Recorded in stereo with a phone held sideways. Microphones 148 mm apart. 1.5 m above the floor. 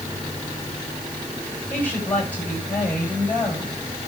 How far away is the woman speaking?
About 7.5 m.